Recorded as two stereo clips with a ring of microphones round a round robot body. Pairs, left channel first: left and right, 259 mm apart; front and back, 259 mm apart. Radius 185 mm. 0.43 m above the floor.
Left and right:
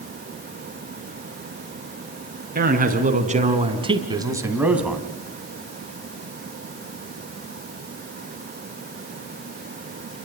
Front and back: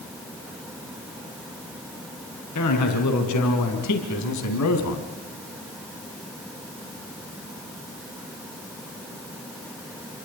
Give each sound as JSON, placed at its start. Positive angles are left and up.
{"t": 2.5, "sound": "a man speaking", "azimuth_deg": -35, "distance_m": 4.0}